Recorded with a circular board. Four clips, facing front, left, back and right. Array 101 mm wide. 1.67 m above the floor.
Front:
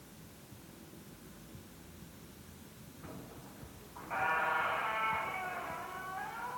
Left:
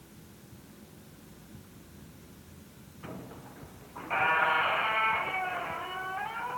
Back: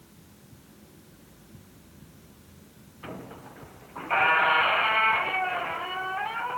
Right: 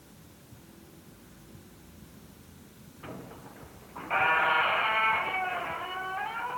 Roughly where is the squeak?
Behind.